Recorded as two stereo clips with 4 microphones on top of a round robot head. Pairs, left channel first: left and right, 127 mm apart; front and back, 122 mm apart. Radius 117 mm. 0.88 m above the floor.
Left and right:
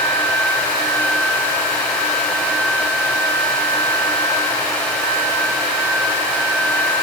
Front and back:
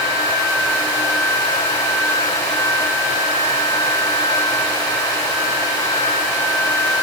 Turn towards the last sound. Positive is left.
No sound to turn to.